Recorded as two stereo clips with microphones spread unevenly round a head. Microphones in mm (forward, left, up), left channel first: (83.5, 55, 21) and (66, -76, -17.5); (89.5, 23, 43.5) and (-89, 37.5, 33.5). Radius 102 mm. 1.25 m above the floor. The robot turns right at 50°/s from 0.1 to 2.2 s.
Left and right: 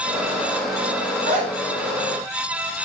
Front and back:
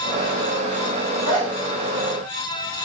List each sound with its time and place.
1.3 s a zipper: 130° right, 1.8 m; by 1.5 s 115° right, 1.8 m